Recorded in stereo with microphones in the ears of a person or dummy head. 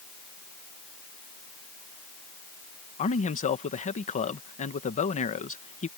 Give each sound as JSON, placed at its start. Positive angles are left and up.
{"t": 3.0, "sound": "a man speaking", "side_deg": 35}